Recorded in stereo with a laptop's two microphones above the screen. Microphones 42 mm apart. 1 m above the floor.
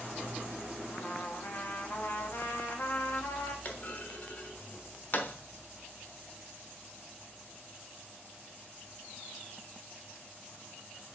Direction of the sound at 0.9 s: 60° left (ahead or behind).